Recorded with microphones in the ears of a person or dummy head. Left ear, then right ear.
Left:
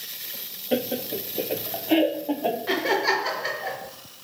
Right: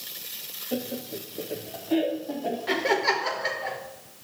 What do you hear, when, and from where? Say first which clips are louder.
0.7 s laughter: left 7 dB; 45° left (ahead or behind), 0.5 m
2.7 s laughter: even; centre (ahead or behind), 1.4 m